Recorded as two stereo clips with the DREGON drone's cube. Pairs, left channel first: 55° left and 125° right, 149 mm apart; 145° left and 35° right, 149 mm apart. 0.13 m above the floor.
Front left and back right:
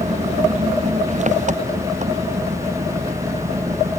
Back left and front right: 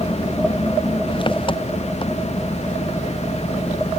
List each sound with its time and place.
0.0 s an engine running: 160° right